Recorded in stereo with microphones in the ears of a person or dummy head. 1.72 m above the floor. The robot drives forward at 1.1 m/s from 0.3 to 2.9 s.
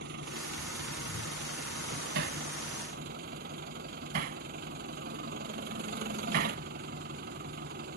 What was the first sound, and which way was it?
An engine running, 50° right (ahead or behind).